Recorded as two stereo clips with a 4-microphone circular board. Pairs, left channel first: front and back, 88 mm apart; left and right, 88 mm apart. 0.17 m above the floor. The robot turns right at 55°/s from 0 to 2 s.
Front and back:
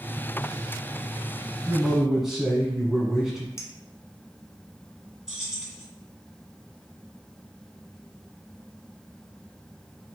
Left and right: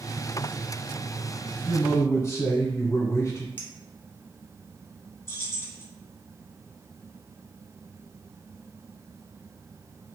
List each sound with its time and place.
1.7 s a man speaking: 80° left, 1.2 m; by 3.5 s 95° left, 1.2 m
3.6 s a clink: 35° left, 0.8 m
5.3 s keys jangling: 105° left, 0.9 m